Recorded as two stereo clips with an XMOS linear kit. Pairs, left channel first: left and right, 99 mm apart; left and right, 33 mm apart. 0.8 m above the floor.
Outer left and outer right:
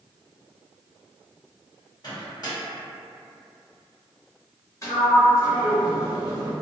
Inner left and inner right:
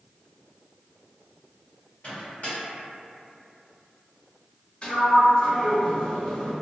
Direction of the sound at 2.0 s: 45° left (ahead or behind).